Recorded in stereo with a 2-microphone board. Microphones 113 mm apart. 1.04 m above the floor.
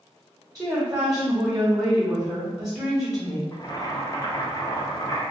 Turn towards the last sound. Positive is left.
turn(degrees=35)  # may be behind; listen again after turning